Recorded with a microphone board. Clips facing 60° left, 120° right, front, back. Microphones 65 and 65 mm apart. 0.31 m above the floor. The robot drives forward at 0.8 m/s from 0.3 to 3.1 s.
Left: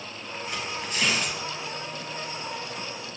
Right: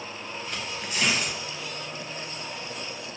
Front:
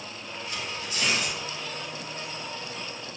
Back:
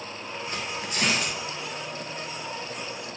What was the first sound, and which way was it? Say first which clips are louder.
Tearing paper: left 3 dB, back 2 dB; 140° left.